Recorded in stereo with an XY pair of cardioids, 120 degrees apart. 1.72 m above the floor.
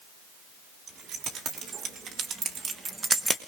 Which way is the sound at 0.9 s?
60° right.